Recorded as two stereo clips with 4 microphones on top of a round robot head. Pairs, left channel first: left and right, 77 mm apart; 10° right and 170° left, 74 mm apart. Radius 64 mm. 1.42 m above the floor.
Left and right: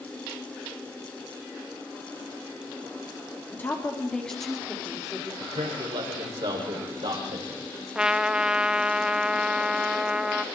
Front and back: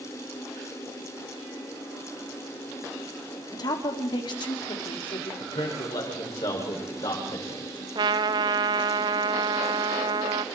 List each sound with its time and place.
3.5 s a woman speaking: 20° left, 3 m; by 5.3 s 10° right, 4 m
5.4 s a man speaking: 50° right, 7 m
8.0 s a trumpet: 170° right, 1.0 m